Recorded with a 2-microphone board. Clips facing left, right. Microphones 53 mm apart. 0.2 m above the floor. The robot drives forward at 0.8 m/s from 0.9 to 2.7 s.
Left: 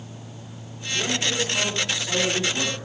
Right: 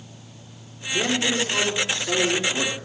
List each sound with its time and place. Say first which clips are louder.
0.9 s a man speaking: right 3 dB; 45° right (ahead or behind), 3.5 m; by 2.8 s 35° right (ahead or behind), 4.5 m